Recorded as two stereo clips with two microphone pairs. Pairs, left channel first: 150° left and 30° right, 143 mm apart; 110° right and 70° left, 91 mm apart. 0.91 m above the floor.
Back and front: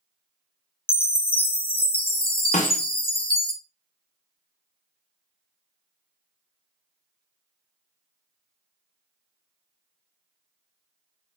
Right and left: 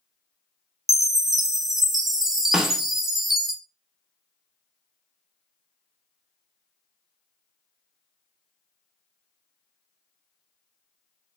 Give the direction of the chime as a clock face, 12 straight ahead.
7 o'clock.